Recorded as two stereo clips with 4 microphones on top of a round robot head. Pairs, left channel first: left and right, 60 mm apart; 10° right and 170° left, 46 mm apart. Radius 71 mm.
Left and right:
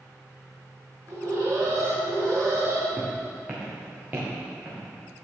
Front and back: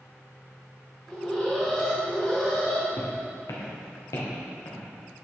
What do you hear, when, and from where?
1.1 s an alarm: 90° right, 2.5 m
3.0 s footsteps: 15° right, 2 m; by 4.9 s 25° right, 3.5 m